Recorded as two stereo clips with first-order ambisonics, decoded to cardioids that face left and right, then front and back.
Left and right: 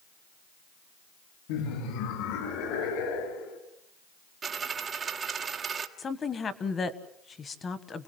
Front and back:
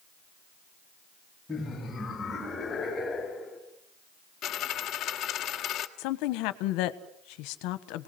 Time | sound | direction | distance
1.5 | laughter | 80° left | 2.5 m
4.4 | a dropped coin | 35° right | 1.3 m
6.0 | a woman speaking | 20° left | 1.4 m